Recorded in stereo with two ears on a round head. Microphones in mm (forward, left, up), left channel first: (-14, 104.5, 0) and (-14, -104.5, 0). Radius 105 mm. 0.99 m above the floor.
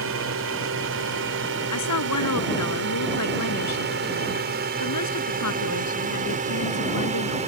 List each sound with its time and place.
0.0 s a drone: 60° right (ahead or behind); by 7.5 s 30° right (ahead or behind)
1.7 s a woman speaking: 85° left